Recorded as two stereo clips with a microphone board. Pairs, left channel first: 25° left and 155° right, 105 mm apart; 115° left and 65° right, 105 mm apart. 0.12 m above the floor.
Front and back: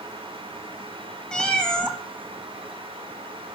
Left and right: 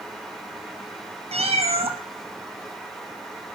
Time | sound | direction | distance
1.3 | a cat meowing | 60° right | 1.3 m